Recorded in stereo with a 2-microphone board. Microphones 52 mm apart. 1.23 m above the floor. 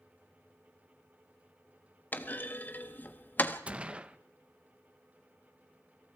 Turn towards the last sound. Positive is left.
turn(degrees=-25)  # may be behind; listen again after turning